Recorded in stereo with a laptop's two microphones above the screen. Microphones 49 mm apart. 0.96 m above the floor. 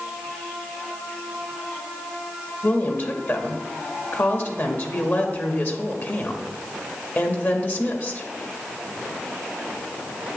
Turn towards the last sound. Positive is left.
turn(degrees=50)  # may be behind; listen again after turning